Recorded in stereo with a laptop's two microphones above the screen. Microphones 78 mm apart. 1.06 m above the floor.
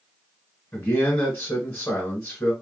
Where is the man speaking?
20° left (ahead or behind), 0.8 m.